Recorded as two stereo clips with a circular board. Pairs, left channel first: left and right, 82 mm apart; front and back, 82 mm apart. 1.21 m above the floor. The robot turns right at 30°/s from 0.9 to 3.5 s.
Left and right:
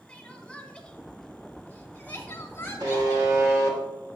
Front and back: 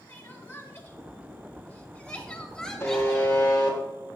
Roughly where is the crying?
Ahead.